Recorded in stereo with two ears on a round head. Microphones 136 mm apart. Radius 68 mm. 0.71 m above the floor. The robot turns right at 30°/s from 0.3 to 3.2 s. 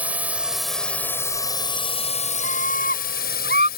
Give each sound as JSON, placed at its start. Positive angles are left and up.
{"t": 0.0, "sound": "a drone", "azimuth_deg": -10}
{"t": 2.4, "sound": "a scream", "side_deg": 45}